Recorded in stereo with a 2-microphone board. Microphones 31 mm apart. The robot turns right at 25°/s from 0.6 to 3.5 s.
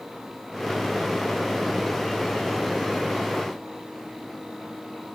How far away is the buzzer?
No buzzer in this recording.